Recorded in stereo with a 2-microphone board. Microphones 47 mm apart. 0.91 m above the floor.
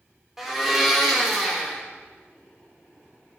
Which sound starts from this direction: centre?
A blender, at 0.4 s.